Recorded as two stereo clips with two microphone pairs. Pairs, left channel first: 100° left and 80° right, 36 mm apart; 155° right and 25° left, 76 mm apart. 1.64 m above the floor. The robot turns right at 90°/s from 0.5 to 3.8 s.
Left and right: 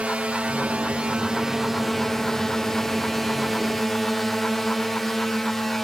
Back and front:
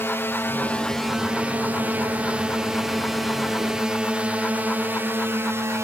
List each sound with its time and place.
0.0 s a drone: 110° right; by 5.8 s 15° left